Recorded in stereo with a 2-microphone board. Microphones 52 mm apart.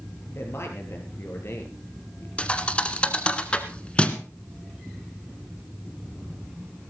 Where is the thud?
20° left (ahead or behind), 1.4 m.